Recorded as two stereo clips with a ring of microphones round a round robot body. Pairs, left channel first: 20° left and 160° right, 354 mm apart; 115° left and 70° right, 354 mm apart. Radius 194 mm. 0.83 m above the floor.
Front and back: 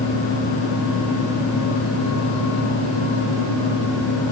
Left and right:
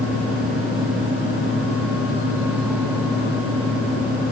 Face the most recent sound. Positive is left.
No sound to turn to.